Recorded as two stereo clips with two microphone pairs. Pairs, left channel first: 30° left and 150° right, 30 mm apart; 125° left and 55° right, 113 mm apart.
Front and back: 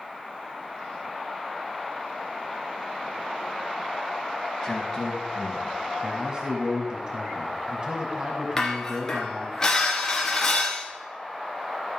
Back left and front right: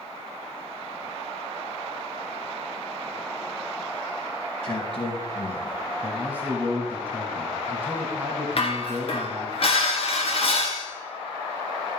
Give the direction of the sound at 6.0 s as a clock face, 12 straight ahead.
4 o'clock.